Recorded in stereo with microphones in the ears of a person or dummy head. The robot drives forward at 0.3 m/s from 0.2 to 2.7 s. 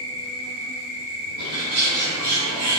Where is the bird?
35° left (ahead or behind), 1.4 m; by 2.8 s 25° left (ahead or behind), 1.7 m.